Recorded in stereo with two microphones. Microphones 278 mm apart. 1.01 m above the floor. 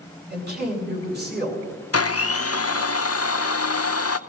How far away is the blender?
About 0.5 m.